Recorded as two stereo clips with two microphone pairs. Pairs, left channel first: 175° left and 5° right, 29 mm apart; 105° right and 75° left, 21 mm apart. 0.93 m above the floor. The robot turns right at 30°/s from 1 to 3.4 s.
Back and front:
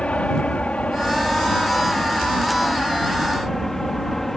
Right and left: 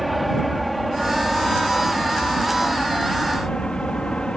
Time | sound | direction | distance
0.0 | an aircraft | 165° left | ?